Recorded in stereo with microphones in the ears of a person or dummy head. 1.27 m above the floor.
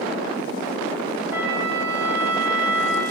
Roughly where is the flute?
Centre.